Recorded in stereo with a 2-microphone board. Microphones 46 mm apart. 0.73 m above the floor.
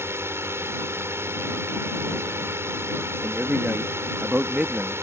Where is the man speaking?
35° right (ahead or behind).